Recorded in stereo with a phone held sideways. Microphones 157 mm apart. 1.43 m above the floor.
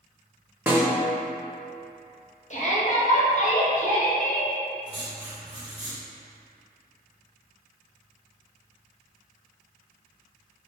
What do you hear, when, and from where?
0.7 s a snare drum: 15° right (ahead or behind), 0.6 m
2.5 s a shout: 50° left (ahead or behind), 1.1 m
4.9 s writing: 5° right (ahead or behind), 1.0 m